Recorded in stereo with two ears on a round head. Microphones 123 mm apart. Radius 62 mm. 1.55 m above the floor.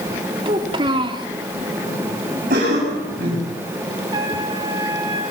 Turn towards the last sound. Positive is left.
turn(degrees=-30)  # may be behind; listen again after turning